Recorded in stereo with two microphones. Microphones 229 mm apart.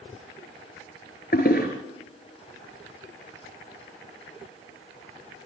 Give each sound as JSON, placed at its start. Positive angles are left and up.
{"t": 1.3, "sound": "a toilet flushing", "side_deg": 40, "distance_m": 5.5}